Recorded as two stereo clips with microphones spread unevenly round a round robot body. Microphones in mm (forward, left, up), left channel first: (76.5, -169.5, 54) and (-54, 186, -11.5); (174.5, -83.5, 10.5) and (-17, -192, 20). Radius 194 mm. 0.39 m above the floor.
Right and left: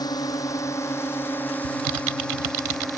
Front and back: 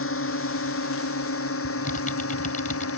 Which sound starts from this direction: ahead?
A drone, at 0.0 s.